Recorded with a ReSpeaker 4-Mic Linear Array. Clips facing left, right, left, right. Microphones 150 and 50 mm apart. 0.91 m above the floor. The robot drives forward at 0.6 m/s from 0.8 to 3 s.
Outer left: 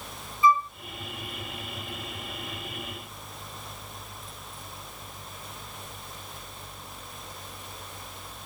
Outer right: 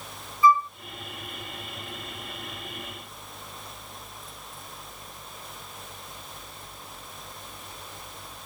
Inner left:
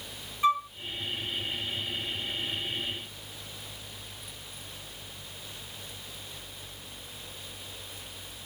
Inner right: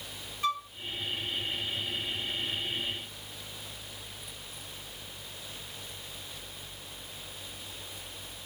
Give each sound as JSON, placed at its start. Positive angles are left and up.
{"t": 0.4, "sound": "a flute", "side_deg": 20}